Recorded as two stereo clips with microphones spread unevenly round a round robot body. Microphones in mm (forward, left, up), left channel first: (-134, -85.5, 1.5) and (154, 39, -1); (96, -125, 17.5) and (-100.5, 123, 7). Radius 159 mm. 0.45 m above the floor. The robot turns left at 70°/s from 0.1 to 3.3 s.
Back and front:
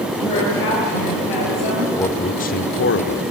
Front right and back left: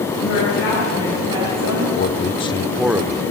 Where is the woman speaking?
90° right, 8 m; by 1.9 s 155° left, 8 m.